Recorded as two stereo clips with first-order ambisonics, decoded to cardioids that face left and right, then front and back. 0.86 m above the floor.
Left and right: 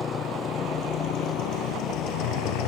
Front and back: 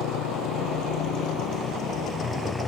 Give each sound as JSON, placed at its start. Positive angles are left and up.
{"t": 0.0, "sound": "a motorcycle", "azimuth_deg": 30}